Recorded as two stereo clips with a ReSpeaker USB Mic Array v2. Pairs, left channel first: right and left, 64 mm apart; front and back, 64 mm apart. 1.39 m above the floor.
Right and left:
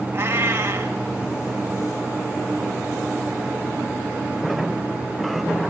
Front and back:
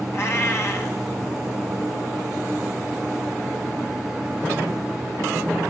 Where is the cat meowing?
40° left, 2.5 m.